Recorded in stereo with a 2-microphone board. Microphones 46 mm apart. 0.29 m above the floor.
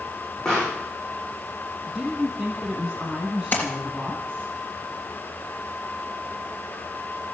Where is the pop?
15° left (ahead or behind), 9.5 m.